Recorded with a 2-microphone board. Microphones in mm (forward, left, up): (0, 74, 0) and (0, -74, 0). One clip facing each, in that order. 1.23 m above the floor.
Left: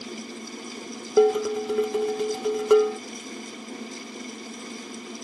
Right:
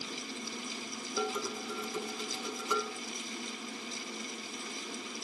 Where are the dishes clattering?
65° left (ahead or behind).